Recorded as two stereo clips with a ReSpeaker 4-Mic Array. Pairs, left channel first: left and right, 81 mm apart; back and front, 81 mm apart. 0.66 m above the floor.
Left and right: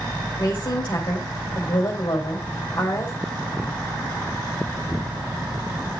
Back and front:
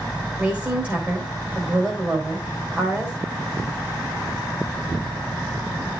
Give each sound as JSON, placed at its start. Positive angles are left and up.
{"t": 0.4, "sound": "a woman speaking", "azimuth_deg": 65, "distance_m": 2.5}